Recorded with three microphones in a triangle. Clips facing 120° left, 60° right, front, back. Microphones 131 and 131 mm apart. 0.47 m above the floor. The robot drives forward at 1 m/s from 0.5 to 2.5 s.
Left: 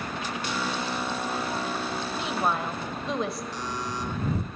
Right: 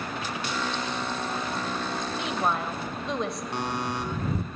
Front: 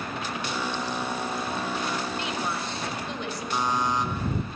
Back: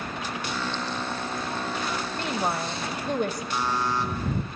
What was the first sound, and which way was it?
A woman speaking, 150° right.